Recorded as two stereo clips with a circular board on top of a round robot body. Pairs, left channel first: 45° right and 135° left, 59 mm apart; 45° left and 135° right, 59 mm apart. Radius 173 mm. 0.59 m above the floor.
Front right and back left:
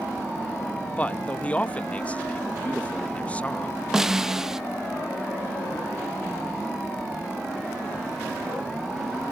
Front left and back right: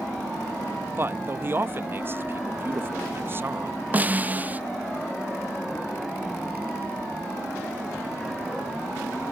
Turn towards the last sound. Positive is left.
turn(degrees=-150)